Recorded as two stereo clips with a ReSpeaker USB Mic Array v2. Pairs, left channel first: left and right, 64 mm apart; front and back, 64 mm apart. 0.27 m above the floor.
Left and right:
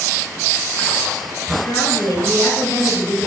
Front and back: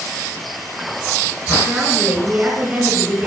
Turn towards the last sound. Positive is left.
turn(degrees=115)